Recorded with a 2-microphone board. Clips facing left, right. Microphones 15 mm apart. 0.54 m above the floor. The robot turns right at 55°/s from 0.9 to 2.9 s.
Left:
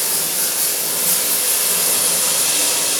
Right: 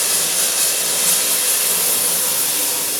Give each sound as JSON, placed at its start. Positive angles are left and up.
{"t": 0.0, "sound": "running water", "azimuth_deg": -35, "distance_m": 1.3}